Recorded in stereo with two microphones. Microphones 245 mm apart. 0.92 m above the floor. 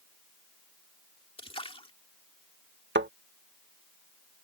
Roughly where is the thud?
Right.